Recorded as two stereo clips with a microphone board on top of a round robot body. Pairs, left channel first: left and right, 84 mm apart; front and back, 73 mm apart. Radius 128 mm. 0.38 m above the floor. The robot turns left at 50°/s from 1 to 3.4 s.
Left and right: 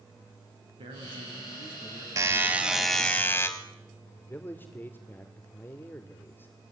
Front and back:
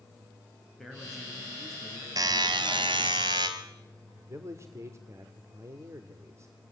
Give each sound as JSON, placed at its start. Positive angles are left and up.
{"t": 0.8, "sound": "a man speaking", "azimuth_deg": -90, "distance_m": 6.0}
{"t": 2.2, "sound": "a buzzer", "azimuth_deg": -145, "distance_m": 2.5}
{"t": 4.2, "sound": "a man speaking", "azimuth_deg": 150, "distance_m": 2.0}